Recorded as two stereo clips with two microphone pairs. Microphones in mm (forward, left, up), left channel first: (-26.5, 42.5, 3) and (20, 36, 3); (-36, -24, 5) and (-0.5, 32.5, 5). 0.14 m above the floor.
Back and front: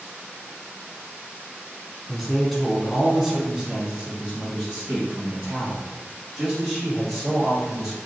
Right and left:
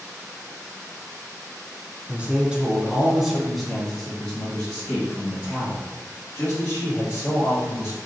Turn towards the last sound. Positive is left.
turn(degrees=-75)